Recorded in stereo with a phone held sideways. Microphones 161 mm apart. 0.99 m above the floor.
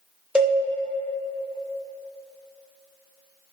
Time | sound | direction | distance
0.3 | a cowbell | 5° right (ahead or behind) | 0.9 m